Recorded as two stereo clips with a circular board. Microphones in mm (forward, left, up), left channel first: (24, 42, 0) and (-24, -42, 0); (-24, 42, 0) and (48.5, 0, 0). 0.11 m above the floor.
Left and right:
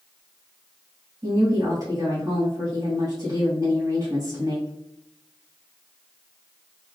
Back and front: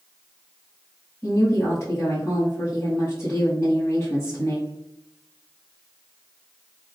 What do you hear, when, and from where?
1.2 s a woman speaking: 160° right, 1.9 m